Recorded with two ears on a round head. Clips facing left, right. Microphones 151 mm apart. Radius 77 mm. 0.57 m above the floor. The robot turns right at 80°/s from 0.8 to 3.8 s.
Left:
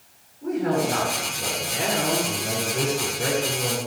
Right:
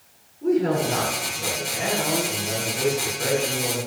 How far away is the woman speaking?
About 6.5 m.